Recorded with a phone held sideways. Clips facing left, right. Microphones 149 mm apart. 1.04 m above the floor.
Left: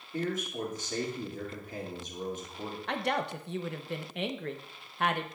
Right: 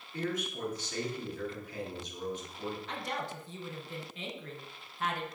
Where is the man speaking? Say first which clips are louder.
Left 2 dB; 45° left (ahead or behind), 2 m.